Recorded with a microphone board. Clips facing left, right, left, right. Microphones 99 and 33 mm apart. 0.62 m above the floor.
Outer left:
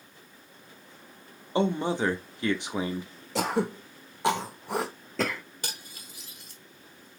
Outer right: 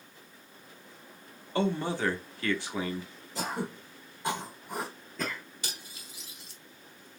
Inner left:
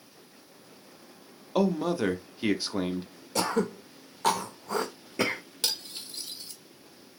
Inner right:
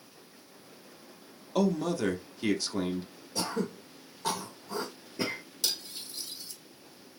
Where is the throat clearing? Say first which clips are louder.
Outer left 7 dB, inner left 5 dB; 85° left, 0.7 m.